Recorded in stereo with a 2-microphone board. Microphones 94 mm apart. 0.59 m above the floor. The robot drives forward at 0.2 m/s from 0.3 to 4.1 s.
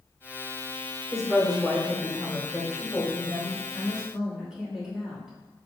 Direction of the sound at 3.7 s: 5° right (ahead or behind).